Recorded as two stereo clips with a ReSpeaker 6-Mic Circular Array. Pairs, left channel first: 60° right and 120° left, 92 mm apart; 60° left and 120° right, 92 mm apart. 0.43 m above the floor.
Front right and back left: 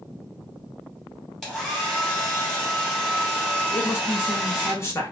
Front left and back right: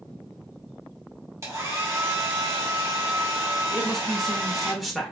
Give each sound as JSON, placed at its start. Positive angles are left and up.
{"t": 1.4, "sound": "a hair dryer", "azimuth_deg": -145, "distance_m": 1.6}
{"t": 3.7, "sound": "a man speaking", "azimuth_deg": -30, "distance_m": 1.0}